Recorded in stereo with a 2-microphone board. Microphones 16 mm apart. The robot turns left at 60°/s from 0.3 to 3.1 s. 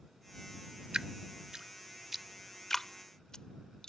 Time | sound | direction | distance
0.9 | dripping | 70° right (ahead or behind) | ?